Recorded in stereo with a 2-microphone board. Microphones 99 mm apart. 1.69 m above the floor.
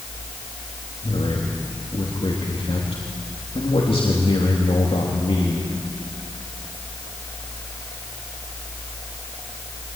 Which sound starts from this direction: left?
A man speaking, at 1.0 s.